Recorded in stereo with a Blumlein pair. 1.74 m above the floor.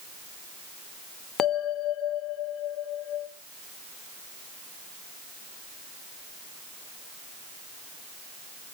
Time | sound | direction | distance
1.4 | a bell | 25° left | 0.5 m